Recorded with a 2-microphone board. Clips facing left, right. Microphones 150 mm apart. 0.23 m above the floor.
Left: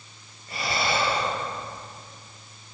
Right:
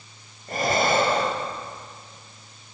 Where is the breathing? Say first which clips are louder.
Right 6 dB; 50° right (ahead or behind), 3 m.